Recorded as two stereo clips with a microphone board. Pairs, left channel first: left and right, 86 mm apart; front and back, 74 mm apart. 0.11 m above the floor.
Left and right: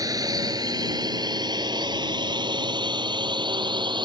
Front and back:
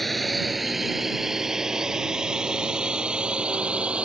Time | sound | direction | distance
0.0 | a drone | 85° right | ?